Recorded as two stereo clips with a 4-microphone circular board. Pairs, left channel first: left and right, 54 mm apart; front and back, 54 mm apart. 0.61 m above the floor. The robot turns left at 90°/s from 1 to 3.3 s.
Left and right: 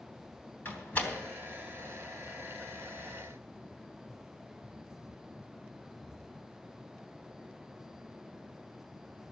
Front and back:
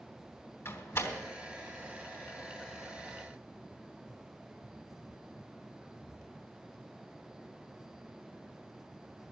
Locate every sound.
0.7 s a door slam: 40° left, 3 m; by 1.1 s 25° left, 3 m